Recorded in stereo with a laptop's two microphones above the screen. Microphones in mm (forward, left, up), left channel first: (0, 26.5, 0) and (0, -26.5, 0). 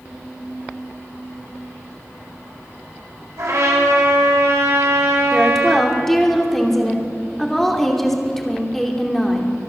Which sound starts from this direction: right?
A trumpet, at 3.4 s.